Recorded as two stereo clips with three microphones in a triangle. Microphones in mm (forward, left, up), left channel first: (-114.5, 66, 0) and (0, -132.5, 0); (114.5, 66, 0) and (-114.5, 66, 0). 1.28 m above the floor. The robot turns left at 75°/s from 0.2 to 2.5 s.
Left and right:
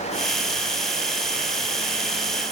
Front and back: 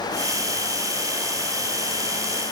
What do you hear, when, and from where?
Only background noise.